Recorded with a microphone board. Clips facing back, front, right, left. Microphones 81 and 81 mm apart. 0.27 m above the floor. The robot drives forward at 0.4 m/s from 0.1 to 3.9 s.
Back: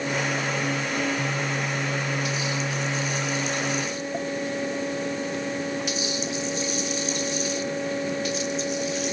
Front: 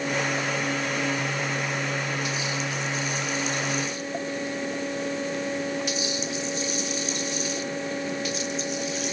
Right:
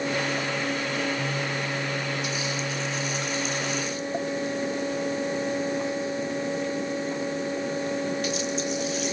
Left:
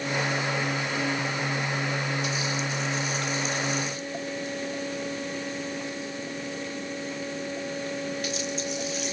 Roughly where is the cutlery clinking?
No cutlery clinking in this recording.